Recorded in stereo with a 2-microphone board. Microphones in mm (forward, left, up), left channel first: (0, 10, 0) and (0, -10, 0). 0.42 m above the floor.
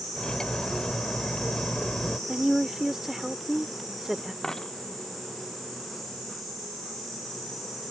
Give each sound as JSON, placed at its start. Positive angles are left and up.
{"t": 0.2, "sound": "cutlery clinking", "side_deg": 45}
{"t": 2.3, "sound": "a woman speaking", "side_deg": -20}
{"t": 4.4, "sound": "a dropped coin", "side_deg": 30}